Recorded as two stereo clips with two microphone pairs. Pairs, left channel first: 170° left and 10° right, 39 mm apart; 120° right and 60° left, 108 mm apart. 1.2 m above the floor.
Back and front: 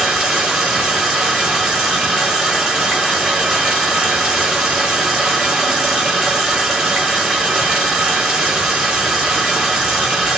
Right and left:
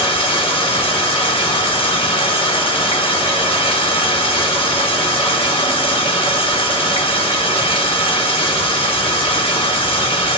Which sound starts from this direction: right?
Running water, at 0.0 s.